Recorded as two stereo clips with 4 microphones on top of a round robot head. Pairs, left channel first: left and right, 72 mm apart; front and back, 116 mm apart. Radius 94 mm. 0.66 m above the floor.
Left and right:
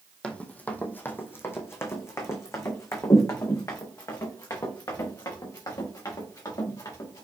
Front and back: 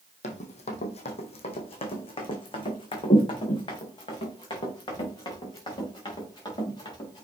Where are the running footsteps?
20° left, 1.2 m; by 7.2 s 55° left, 4.5 m.